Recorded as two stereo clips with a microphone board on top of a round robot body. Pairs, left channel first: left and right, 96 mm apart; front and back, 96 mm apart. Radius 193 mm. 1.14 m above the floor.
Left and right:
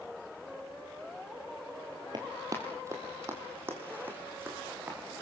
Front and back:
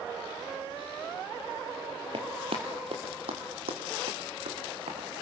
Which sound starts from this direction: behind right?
Running footsteps, at 2.1 s.